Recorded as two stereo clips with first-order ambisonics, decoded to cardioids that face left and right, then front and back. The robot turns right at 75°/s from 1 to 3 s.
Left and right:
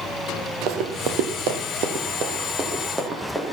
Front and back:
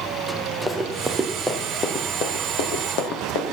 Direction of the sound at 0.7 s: 100° right.